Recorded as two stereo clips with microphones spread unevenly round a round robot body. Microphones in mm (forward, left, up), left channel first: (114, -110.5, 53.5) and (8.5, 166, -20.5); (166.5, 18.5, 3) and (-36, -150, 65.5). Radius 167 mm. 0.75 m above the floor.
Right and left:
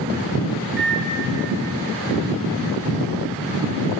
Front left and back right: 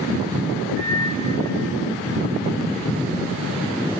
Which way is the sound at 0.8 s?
170° left.